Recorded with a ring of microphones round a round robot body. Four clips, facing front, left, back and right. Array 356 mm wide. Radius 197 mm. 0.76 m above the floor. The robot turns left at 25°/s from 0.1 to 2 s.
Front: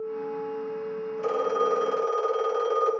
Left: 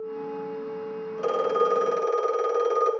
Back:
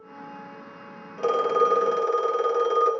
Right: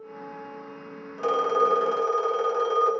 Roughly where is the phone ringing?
Behind left.